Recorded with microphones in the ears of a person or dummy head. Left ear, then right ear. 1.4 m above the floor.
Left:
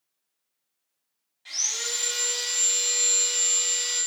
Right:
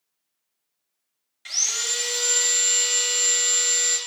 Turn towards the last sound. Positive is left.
turn(degrees=-50)  # may be behind; listen again after turning